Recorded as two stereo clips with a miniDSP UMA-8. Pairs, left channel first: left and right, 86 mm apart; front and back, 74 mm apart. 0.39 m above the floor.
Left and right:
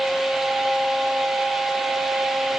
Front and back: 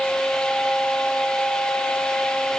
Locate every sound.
Only background noise.